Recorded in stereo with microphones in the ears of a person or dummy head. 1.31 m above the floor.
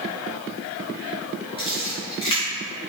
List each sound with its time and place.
1.6 s a camera shutter: 25° left (ahead or behind), 2 m